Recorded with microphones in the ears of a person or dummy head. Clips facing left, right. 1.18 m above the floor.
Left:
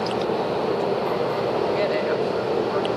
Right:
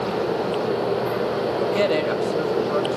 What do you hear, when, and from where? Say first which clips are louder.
1.6 s a woman speaking: right 2 dB; 45° right (ahead or behind), 1.9 m